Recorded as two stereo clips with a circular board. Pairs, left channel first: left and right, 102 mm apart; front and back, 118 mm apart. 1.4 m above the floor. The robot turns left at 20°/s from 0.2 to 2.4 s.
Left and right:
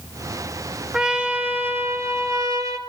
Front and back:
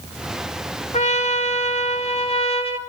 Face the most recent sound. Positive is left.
turn(degrees=-35)